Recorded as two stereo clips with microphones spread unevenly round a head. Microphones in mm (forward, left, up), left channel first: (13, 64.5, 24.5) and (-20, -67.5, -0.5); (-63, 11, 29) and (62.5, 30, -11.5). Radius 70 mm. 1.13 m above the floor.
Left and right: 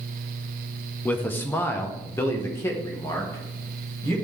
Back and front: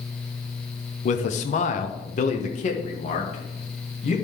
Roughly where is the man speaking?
Behind.